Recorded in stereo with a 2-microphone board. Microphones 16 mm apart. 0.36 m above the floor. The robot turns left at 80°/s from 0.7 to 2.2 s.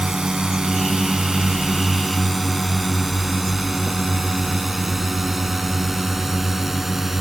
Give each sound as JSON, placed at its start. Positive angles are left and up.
{"t": 0.0, "sound": "a drone", "side_deg": -60}